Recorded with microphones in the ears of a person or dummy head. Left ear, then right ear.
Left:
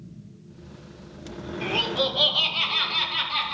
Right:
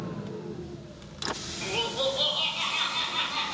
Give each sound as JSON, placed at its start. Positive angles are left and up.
{"t": 1.6, "sound": "laughter", "side_deg": 5, "distance_m": 0.7}